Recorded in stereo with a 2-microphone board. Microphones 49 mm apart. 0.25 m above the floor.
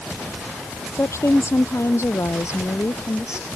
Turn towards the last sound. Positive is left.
turn(degrees=75)  # may be behind; listen again after turning